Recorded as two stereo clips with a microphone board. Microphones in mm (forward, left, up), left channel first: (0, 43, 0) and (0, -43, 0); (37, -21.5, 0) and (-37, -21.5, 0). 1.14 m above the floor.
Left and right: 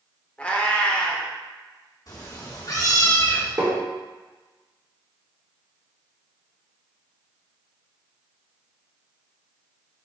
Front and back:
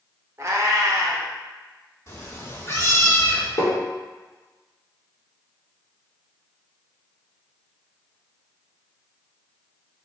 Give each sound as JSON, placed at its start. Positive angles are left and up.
{"t": 0.4, "sound": "a cat meowing", "azimuth_deg": 160, "distance_m": 0.5}
{"t": 2.1, "sound": "a cat meowing", "azimuth_deg": 50, "distance_m": 1.1}
{"t": 3.6, "sound": "tapping", "azimuth_deg": -45, "distance_m": 1.2}